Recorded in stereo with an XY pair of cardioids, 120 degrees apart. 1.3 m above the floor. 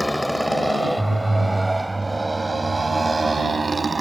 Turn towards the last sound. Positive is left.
turn(degrees=-25)